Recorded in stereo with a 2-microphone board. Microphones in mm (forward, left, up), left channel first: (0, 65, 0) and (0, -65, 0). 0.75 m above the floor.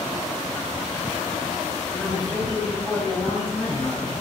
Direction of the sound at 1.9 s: 10° left (ahead or behind).